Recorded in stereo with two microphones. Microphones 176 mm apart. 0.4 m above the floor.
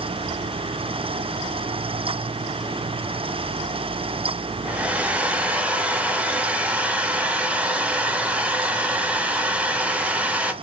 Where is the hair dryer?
10° right (ahead or behind), 0.5 m.